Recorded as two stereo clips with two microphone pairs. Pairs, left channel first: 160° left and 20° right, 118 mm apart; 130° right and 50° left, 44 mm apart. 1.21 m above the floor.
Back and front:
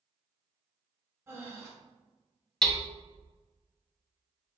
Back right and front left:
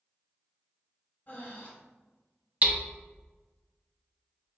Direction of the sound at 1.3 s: 85° right.